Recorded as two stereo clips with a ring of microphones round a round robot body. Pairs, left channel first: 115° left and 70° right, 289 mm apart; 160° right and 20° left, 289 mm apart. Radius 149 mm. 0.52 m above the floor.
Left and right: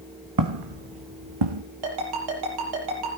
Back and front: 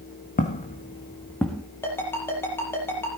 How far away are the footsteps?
About 2 m.